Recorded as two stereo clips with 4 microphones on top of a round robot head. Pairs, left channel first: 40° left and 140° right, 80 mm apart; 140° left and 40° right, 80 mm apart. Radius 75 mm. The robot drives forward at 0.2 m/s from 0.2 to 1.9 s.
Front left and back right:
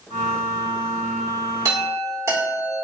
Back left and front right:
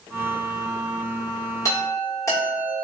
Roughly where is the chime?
Behind.